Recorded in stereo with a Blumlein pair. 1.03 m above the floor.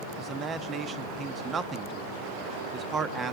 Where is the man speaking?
20° right, 1.2 m.